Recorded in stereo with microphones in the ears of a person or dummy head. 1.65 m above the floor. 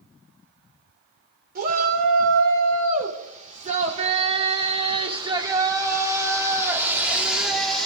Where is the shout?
55° right (ahead or behind), 4.5 m; by 7.9 s centre (ahead or behind), 3.5 m.